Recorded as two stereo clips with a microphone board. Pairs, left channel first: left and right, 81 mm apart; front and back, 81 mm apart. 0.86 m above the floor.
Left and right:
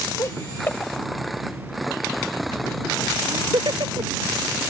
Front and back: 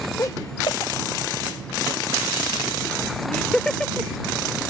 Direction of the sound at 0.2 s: 45° left.